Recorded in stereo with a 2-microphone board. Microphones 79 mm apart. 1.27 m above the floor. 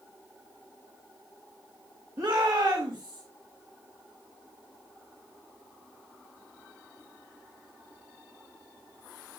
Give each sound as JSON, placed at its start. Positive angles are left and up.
{"t": 2.2, "sound": "a shout", "side_deg": -60, "distance_m": 2.0}